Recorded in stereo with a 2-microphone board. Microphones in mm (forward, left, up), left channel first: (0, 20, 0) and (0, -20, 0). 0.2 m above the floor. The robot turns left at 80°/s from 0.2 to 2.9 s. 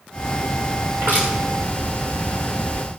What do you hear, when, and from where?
1.0 s crushing: 85° right, 6.5 m; by 1.3 s 70° right (ahead or behind), 6.5 m